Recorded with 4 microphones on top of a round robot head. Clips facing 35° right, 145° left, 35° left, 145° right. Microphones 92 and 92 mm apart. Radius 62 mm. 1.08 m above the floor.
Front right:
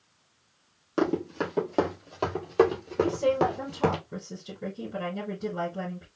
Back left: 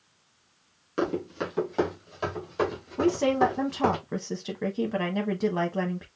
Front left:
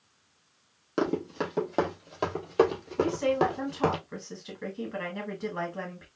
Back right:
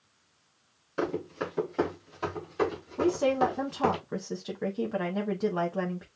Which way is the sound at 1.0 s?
20° left.